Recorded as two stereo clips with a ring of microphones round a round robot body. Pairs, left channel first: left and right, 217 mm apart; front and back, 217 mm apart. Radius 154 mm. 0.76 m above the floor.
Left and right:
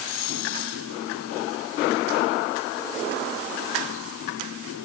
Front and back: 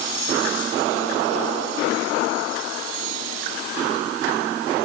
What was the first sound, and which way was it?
Only background noise.